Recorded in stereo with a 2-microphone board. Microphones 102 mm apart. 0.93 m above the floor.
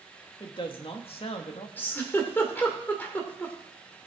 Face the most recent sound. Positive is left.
turn(degrees=20)  # may be behind; listen again after turning